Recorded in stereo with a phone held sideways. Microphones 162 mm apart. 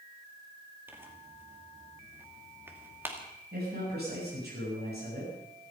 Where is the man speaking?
85° right, 9.5 m.